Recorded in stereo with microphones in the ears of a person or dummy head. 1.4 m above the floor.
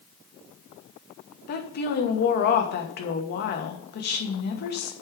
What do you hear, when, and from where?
1.5 s a woman speaking: 50° left (ahead or behind), 1.1 m